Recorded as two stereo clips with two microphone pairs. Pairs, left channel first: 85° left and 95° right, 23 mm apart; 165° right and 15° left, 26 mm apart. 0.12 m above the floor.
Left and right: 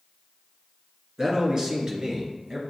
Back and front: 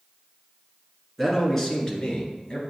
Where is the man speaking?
75° right, 1.3 m; by 2.6 s 135° right, 1.8 m.